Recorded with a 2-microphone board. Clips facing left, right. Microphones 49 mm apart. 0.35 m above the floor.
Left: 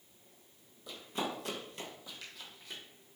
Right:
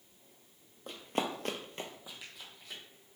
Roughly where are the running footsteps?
Right.